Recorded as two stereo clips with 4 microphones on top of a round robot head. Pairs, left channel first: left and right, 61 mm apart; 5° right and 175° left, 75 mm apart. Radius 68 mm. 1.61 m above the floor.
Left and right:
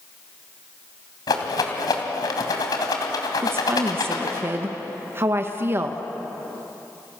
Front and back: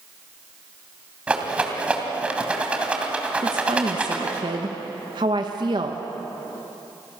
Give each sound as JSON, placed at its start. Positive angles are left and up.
{"t": 1.3, "sound": "a rattle", "azimuth_deg": 105, "distance_m": 3.0}
{"t": 3.4, "sound": "a woman speaking", "azimuth_deg": -140, "distance_m": 1.5}